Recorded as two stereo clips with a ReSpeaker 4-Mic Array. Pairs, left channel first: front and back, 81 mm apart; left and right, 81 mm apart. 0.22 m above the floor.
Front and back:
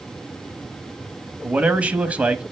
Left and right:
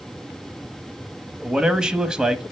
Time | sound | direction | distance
1.4 | a man speaking | 155° right | 1.0 m